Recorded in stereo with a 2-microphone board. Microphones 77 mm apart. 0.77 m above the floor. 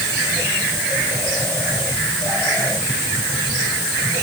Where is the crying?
I don't hear crying.